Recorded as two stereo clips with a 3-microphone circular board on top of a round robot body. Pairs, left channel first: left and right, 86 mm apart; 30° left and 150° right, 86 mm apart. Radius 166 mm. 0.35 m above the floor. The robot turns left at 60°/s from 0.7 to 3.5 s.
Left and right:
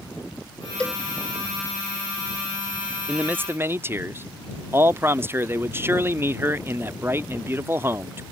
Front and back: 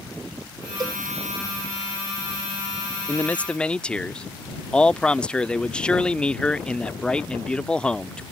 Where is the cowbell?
170° left; by 1.0 s 155° left.